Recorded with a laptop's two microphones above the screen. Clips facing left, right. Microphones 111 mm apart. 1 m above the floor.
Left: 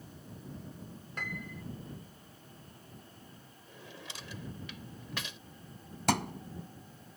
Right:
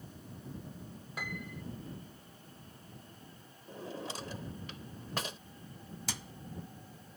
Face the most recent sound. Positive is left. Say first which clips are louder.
# left 18 dB
turn(degrees=75)  # may be behind; listen again after turning